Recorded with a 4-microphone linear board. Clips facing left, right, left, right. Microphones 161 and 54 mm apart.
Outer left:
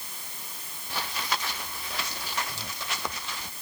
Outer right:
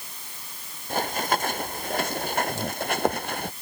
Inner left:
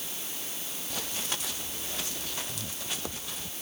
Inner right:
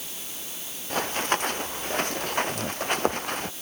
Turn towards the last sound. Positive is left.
turn(degrees=-55)  # may be behind; listen again after turning